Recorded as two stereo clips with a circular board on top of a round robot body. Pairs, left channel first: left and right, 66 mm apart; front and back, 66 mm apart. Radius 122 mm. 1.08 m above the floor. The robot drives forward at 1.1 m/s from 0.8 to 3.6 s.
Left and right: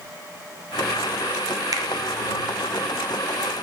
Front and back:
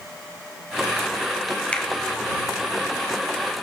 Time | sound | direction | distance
1.7 | a finger snap | 70° right | 0.8 m